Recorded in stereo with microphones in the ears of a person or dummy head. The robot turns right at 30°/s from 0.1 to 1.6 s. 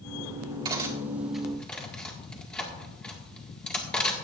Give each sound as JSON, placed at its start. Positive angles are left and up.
{"t": 0.7, "sound": "cutlery clinking", "side_deg": -30, "distance_m": 1.8}